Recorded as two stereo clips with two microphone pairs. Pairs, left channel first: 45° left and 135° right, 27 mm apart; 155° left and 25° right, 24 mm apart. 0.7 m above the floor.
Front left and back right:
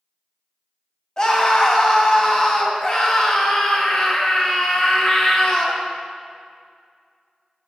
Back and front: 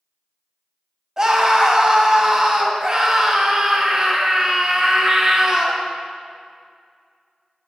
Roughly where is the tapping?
I don't hear tapping.